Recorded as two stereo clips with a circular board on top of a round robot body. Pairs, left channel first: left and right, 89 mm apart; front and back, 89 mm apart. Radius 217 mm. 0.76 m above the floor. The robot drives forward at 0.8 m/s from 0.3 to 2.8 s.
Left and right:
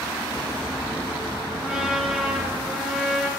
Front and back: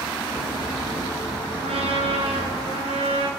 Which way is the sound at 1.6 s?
Straight behind.